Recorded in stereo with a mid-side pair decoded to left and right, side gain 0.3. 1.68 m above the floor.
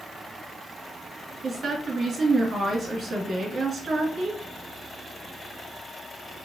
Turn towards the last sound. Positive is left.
turn(degrees=-65)